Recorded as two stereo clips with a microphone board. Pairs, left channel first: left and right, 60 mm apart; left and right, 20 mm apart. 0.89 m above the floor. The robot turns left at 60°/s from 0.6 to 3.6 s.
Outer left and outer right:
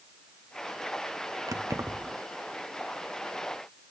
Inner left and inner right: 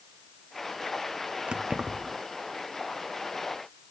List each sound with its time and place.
1.5 s keys jangling: 75° right (ahead or behind), 0.8 m; by 2.2 s 35° right (ahead or behind), 0.8 m